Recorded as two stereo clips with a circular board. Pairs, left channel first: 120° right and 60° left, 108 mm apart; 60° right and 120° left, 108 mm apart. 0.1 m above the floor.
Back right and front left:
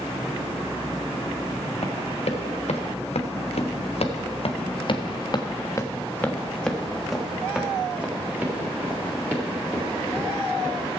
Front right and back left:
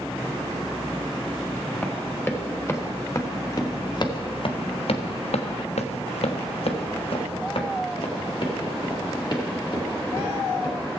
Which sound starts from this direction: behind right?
Running footsteps, at 1.8 s.